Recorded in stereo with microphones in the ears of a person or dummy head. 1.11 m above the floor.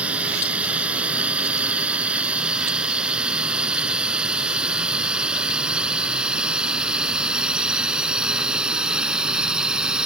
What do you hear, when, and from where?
0.0 s a drone: 10° right (ahead or behind); by 10.1 s 5° right (ahead or behind)